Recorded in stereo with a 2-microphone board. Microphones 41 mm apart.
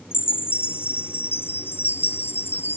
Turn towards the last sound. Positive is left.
turn(degrees=70)  # may be behind; listen again after turning